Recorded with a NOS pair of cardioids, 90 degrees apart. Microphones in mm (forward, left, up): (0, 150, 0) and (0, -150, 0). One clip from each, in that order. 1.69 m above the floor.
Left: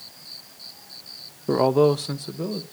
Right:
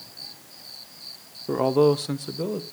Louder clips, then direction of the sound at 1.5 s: Left 1 dB; 25° left.